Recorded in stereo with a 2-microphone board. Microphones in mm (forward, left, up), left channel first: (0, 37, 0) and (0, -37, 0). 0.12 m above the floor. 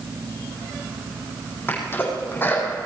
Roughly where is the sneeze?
Left.